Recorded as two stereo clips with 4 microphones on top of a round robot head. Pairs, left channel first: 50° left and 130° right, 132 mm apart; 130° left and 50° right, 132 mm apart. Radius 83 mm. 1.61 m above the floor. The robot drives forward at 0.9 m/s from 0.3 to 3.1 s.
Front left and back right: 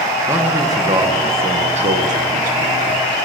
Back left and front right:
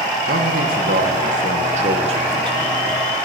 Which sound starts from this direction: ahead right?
A man speaking, at 0.3 s.